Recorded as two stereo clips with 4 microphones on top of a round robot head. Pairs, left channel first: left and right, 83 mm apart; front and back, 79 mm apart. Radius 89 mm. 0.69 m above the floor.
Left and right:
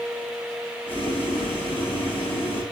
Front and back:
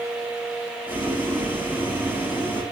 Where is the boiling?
115° left, 9.5 m.